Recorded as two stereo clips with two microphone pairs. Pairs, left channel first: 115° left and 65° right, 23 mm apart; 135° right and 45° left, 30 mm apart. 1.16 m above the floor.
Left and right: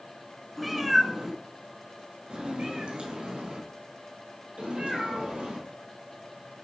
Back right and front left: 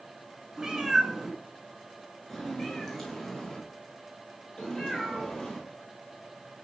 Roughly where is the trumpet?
No trumpet in this recording.